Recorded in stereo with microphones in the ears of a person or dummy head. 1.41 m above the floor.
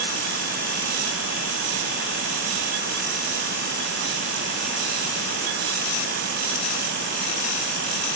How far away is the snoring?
I don't hear snoring.